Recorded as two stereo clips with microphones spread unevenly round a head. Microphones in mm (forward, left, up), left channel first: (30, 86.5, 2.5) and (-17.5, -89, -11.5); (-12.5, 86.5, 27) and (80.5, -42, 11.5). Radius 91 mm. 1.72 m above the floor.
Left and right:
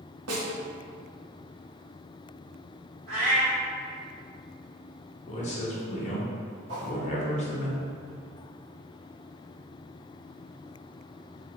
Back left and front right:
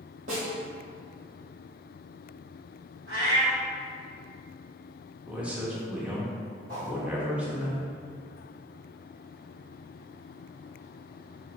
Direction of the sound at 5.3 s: 30° left.